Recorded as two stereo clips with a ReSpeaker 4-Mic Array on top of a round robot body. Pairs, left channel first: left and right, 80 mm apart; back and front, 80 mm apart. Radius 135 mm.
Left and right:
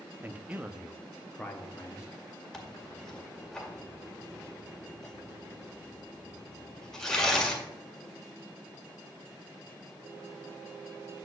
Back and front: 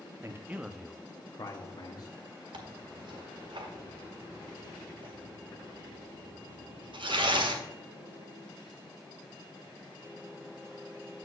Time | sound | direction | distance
0.2 | a man speaking | 35° right | 1.0 m
2.5 | tearing paper | 5° left | 2 m